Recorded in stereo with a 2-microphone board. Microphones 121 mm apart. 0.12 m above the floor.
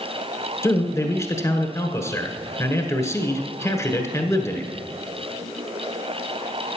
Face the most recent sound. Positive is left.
turn(degrees=25)  # may be behind; listen again after turning